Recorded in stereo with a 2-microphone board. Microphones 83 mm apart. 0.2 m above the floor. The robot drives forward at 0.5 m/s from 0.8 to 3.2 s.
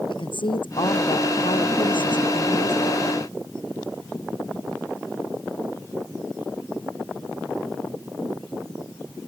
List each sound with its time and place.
0.1 s a woman speaking: 75° left (ahead or behind); by 3.1 s 80° left